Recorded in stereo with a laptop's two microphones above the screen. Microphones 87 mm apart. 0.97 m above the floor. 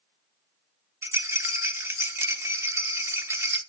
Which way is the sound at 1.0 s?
30° right (ahead or behind).